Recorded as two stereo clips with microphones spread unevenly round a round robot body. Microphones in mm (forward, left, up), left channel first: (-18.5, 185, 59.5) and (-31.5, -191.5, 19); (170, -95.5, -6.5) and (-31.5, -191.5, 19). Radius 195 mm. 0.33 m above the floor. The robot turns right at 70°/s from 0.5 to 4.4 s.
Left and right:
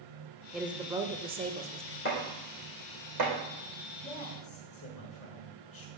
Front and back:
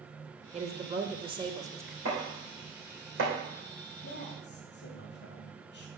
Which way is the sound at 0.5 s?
165° right.